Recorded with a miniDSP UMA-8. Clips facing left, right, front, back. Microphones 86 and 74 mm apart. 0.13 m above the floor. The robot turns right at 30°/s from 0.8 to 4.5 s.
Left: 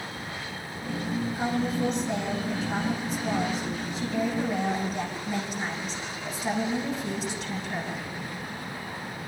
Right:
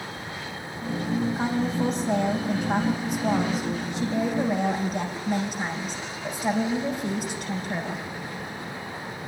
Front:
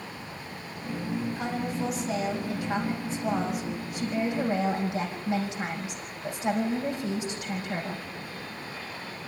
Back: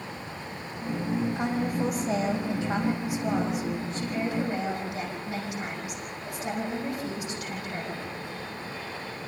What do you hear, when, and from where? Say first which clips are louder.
1.4 s a woman speaking: right 2 dB, back 3 dB; 155° right, 6.5 m; by 8.0 s 60° right, 6.5 m